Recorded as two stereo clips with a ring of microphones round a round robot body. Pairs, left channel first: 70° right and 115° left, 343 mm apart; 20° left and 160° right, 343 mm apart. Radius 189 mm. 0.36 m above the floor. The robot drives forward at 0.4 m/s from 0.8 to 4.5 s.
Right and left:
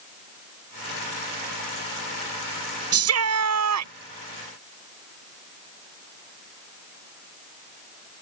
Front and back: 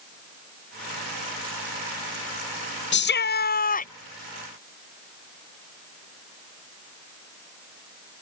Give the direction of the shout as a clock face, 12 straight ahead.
10 o'clock.